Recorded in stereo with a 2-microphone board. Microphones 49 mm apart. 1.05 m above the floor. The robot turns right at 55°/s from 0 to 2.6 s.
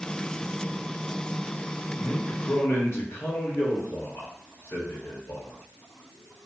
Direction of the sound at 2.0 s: 35° left.